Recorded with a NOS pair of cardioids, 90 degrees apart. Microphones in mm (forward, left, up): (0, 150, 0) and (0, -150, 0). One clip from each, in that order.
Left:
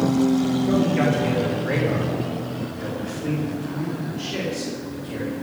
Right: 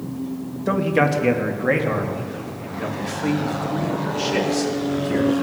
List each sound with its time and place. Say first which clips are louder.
0.7 s a man speaking: right 5 dB; 70° right, 1.9 m